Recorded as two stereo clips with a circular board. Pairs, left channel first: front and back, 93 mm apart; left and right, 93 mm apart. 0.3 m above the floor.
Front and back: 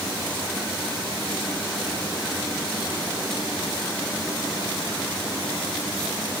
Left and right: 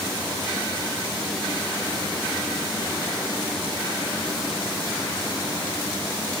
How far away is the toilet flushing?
I don't hear a toilet flushing.